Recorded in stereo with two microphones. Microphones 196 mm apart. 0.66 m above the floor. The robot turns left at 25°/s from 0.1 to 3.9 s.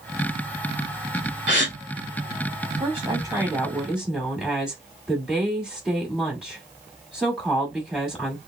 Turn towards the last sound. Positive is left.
turn(degrees=-5)  # may be behind; listen again after turning